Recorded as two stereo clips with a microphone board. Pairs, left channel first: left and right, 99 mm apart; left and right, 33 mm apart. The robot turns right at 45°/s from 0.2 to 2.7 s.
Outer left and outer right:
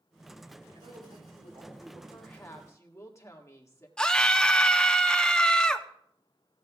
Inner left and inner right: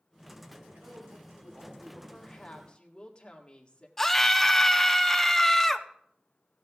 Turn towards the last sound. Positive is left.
turn(degrees=10)  # may be behind; listen again after turning